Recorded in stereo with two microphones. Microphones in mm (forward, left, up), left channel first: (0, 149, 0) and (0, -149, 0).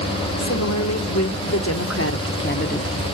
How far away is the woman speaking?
About 2.5 m.